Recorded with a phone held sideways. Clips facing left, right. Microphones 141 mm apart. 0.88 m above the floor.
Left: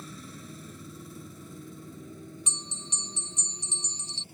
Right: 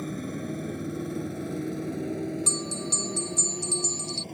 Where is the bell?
35° right (ahead or behind).